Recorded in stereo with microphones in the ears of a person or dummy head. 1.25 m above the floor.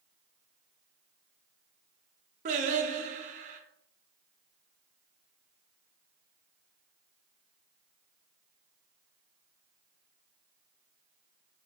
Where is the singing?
40° right (ahead or behind), 0.5 m.